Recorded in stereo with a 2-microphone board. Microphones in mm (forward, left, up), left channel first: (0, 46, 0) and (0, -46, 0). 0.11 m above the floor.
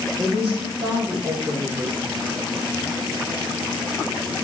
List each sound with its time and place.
0.2 s a woman speaking: 70° right (ahead or behind), 3.5 m; by 2.4 s 45° right (ahead or behind), 3 m